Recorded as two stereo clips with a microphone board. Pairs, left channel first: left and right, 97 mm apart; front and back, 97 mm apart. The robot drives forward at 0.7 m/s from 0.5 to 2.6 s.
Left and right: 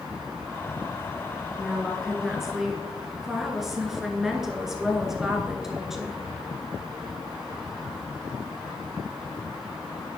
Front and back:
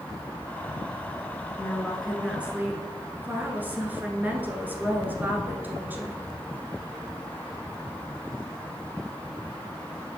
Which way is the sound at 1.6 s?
15° right.